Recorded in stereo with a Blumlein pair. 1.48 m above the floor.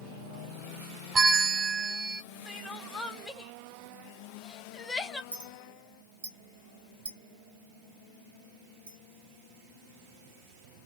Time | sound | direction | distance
1.1 | a bell | 20° right | 0.5 m
2.5 | crying | 10° left | 0.7 m
5.3 | a clink | 65° right | 1.2 m